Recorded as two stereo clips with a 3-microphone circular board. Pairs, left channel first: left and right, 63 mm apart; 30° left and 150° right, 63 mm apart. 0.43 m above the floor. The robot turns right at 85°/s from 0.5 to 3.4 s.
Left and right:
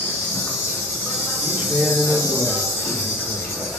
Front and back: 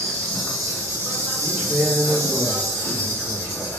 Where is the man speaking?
95° right, 0.8 m; by 3.6 s 75° left, 0.8 m.